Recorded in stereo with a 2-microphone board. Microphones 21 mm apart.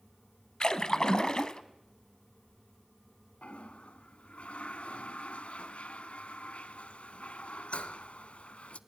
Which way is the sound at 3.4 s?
65° left (ahead or behind).